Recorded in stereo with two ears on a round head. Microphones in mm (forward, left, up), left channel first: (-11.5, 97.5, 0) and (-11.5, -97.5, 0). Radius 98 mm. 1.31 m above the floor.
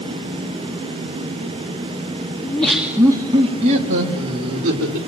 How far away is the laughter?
About 2 m.